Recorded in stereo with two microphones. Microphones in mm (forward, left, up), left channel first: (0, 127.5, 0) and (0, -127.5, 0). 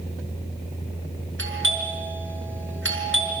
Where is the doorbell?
50° right (ahead or behind), 5 m.